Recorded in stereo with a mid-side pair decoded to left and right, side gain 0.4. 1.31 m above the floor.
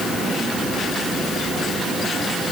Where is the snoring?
No snoring in this recording.